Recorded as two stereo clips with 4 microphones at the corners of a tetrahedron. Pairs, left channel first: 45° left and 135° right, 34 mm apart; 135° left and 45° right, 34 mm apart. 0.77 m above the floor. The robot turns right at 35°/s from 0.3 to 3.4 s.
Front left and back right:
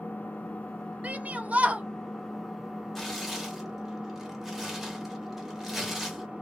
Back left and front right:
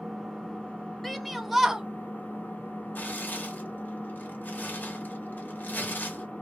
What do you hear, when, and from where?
0.0 s an engine running: 55° left, 1.1 m; by 6.4 s 165° left, 1.1 m
1.0 s a shout: 140° right, 0.6 m; by 1.8 s 115° right, 0.6 m
3.0 s tearing paper: 125° left, 0.9 m; by 6.3 s 145° left, 0.9 m